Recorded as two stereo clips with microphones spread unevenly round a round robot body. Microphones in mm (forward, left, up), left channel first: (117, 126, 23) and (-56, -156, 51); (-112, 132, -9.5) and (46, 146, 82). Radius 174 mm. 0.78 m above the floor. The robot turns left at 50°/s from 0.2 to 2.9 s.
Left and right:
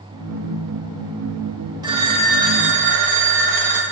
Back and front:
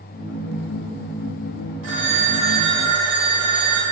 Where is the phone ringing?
40° right, 2 m; by 3.8 s 95° right, 2 m.